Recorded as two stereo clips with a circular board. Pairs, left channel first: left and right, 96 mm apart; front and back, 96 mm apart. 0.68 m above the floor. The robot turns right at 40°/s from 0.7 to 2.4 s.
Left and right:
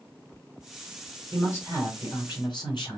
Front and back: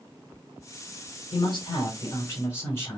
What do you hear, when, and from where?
1.3 s a man speaking: 15° left, 3.5 m; by 3.0 s 60° left, 3.5 m